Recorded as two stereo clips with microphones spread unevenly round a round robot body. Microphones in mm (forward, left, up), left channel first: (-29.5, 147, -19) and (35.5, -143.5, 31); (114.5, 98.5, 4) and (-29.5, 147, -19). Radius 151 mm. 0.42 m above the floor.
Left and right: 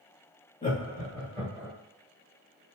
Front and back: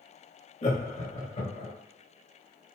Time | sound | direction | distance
0.6 | laughter | 35° left | 1.9 m